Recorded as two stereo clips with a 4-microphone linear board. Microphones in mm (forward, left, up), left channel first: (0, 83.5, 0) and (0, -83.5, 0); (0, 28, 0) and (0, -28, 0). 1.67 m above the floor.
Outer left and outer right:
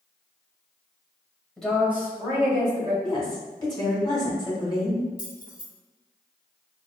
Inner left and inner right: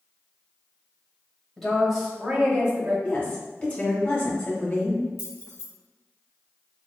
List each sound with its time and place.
1.6 s a woman speaking: 5° left (ahead or behind), 1.5 m; by 2.9 s 30° right (ahead or behind), 2.5 m
3.0 s a woman speaking: 25° left (ahead or behind), 1.6 m
5.2 s keys jangling: 55° left (ahead or behind), 1.4 m